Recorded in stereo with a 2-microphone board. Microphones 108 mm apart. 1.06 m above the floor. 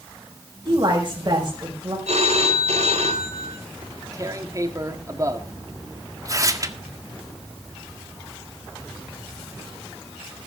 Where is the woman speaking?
35° right (ahead or behind), 6.5 m.